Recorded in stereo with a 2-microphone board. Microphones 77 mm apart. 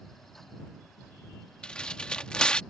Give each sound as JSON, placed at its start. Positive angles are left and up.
{"t": 1.6, "sound": "tearing paper", "side_deg": 15}